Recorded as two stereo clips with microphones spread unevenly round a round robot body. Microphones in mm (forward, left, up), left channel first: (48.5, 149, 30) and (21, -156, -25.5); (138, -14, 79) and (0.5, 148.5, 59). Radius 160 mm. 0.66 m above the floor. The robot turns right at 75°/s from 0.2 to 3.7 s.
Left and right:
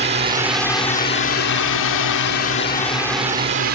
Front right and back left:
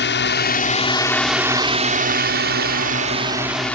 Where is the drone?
40° right; by 3.8 s 135° right.